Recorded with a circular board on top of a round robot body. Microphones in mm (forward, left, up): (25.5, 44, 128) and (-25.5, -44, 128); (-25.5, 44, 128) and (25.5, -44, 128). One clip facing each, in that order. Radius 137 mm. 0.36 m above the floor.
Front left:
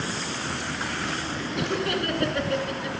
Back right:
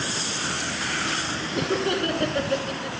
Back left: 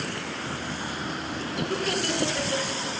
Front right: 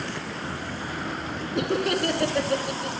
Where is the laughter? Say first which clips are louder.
Back right 3 dB, front right 5 dB; 75° right, 1.9 m; by 3.0 s 50° right, 2.5 m.